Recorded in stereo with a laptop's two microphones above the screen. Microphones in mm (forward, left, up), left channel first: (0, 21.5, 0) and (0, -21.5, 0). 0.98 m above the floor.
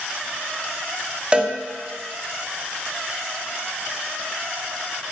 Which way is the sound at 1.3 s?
25° right (ahead or behind).